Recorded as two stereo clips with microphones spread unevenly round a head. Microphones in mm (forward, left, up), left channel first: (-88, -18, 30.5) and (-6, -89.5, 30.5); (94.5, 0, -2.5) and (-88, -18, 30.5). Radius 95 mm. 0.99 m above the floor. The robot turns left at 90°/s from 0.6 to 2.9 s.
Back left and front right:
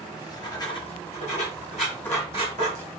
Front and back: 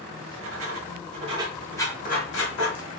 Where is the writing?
170° right, 2 m; by 2.9 s 15° right, 2 m.